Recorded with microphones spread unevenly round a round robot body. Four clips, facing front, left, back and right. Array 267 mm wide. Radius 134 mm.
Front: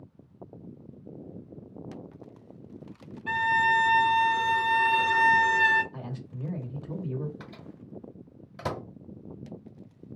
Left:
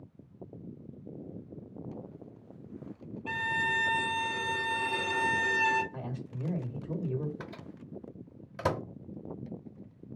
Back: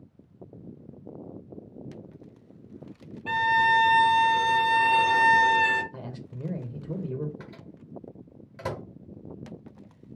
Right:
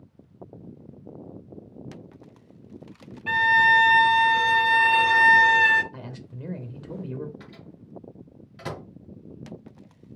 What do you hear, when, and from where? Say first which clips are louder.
3.3 s a violin: right 13 dB, back 2 dB; 165° right, 0.5 m
5.9 s a man speaking: left 1 dB, even; 165° right, 0.9 m
7.4 s a microwave: left 1 dB, even; 115° left, 1.1 m